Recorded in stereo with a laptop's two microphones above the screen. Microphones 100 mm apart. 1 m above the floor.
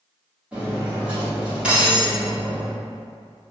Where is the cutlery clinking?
10° right (ahead or behind), 1.5 m.